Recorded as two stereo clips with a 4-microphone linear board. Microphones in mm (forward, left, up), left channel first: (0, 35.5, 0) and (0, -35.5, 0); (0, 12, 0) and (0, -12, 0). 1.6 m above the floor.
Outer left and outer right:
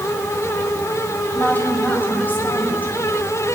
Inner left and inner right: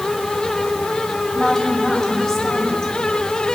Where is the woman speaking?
25° left (ahead or behind), 8.5 m.